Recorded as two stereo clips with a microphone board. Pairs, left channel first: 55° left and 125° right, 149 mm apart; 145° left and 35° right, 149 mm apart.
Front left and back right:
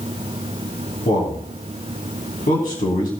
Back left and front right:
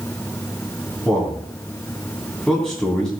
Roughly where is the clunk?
No clunk in this recording.